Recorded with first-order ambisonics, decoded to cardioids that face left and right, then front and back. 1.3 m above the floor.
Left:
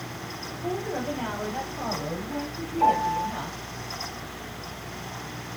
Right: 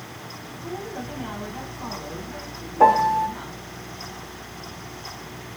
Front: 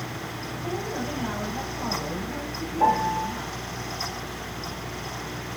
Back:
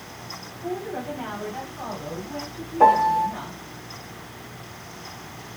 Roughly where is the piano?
Behind right.